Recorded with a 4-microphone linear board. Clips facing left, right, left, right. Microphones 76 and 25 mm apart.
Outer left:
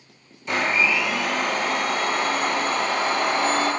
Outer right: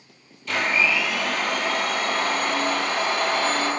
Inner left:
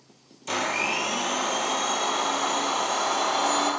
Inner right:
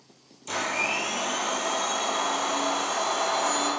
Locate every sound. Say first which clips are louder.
0.5 s a blender: outer left 1 dB, inner left 1 dB; 20° left (ahead or behind), 1.8 m